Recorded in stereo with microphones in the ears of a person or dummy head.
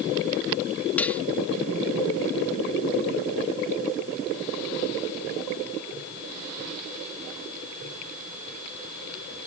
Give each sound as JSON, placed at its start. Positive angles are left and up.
{"t": 1.0, "sound": "cutlery clinking", "side_deg": 0}